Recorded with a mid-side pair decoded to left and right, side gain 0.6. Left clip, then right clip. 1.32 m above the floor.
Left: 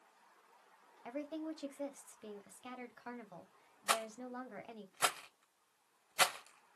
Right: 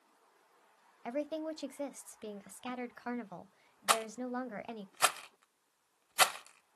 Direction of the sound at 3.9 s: 25° right.